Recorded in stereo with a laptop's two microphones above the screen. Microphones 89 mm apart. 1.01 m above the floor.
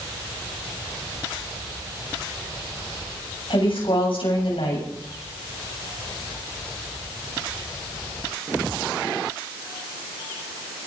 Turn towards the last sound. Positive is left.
turn(degrees=75)  # may be behind; listen again after turning